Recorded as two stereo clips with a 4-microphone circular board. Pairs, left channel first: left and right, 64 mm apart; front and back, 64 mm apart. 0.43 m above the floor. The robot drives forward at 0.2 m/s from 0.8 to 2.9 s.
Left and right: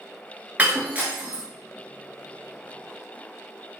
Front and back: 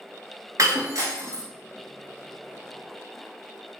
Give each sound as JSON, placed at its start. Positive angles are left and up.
{"t": 0.6, "sound": "breaking glass", "azimuth_deg": -155, "distance_m": 0.8}